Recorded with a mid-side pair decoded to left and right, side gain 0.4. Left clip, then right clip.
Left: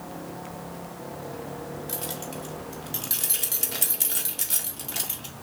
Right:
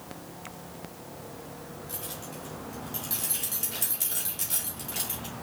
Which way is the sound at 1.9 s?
70° left.